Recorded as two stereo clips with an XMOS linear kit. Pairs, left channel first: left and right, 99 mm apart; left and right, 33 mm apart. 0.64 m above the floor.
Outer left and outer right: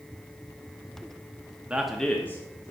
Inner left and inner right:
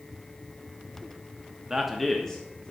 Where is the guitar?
No guitar in this recording.